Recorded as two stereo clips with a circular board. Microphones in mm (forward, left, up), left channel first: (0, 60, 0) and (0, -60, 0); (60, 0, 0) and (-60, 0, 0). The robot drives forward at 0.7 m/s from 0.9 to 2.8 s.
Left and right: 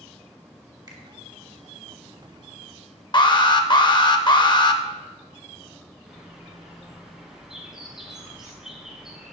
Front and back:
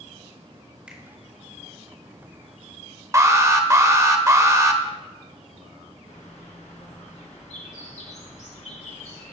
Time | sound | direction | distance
0.9 | a finger snap | 105° right | 1.5 m
3.1 | an alarm | 125° left | 0.7 m
6.1 | a bird | 5° right | 2.5 m